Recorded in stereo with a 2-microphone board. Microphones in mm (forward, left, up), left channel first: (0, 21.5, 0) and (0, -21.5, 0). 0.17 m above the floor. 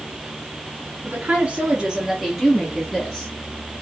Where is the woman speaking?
40° right (ahead or behind), 1.4 m; by 3.3 s 25° left (ahead or behind), 1.7 m.